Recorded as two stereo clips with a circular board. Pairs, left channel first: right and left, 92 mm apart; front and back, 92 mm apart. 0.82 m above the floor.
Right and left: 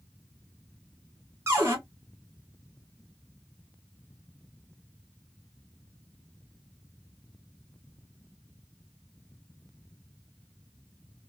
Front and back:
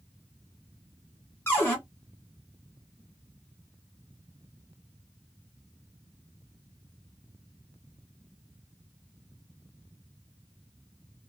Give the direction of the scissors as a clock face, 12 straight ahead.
No scissors in this recording.